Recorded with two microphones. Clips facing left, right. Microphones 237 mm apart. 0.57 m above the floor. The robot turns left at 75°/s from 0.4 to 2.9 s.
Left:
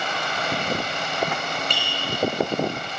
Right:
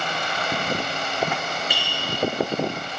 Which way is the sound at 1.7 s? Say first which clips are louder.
Even; 5° right (ahead or behind).